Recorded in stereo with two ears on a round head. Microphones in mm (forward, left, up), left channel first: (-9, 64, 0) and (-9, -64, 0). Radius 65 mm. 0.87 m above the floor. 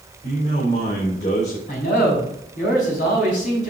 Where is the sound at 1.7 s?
65° left (ahead or behind), 4.5 m.